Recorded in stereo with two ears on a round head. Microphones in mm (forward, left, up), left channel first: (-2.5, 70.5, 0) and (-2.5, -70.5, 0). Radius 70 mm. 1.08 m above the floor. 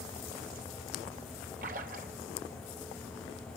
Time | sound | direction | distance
1.6 | a splash | 55° right (ahead or behind) | 3.5 m